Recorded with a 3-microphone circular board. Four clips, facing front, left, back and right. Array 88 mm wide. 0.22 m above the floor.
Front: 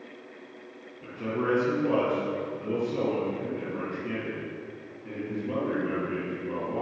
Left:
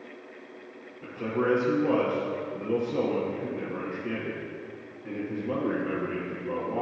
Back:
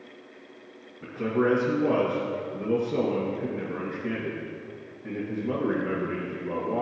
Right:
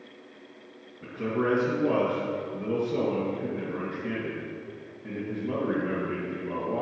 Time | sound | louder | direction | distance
1.0 | a man speaking | even, back 5 dB | 160° right | 3.5 m